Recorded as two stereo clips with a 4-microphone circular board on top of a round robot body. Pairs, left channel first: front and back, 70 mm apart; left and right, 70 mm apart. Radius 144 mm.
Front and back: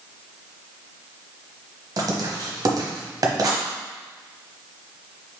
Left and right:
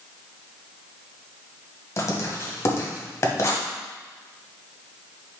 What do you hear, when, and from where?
2.0 s writing: 140° left, 0.9 m